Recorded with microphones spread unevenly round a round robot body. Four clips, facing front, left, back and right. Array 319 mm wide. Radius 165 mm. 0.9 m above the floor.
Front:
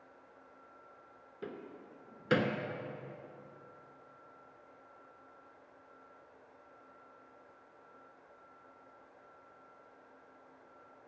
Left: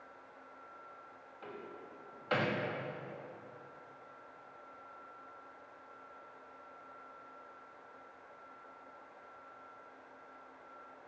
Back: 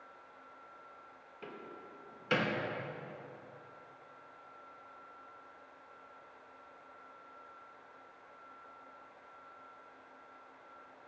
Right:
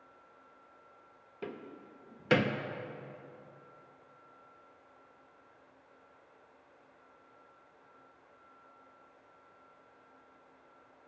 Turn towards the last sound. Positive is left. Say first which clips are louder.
# right 4 dB, front 3 dB
turn(degrees=-60)